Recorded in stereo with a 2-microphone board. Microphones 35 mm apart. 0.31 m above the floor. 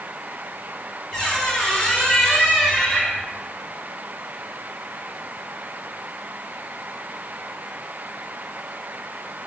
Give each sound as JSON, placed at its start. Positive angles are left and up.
{"t": 1.1, "sound": "a squeak", "side_deg": 15, "distance_m": 1.1}